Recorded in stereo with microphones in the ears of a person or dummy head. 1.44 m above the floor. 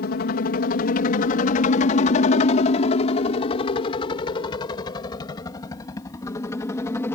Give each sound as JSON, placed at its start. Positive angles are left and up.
{"t": 0.0, "sound": "a helicopter", "side_deg": 55}